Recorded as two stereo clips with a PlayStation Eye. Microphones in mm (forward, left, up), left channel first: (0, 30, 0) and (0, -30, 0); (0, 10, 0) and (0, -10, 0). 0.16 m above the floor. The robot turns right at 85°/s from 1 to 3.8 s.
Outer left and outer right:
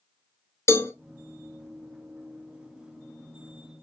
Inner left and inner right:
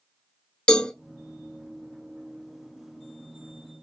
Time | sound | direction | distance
0.7 | a cowbell | 45° left (ahead or behind) | 0.8 m